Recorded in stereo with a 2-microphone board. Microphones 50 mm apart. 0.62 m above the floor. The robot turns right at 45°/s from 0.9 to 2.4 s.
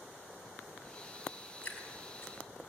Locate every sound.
1.6 s dripping: 25° left (ahead or behind), 4.5 m; by 2.3 s 60° left (ahead or behind), 4.5 m